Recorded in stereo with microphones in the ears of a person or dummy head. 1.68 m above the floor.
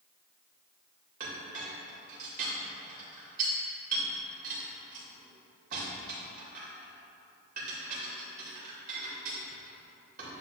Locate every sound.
1.2 s a clink: 50° right (ahead or behind), 2.5 m